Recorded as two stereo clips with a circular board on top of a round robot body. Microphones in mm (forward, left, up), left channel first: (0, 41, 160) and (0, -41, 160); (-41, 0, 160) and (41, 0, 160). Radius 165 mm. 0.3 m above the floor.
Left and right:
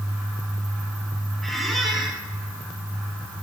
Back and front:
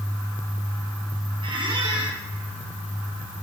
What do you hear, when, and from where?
1.4 s a squeak: straight ahead, 1.6 m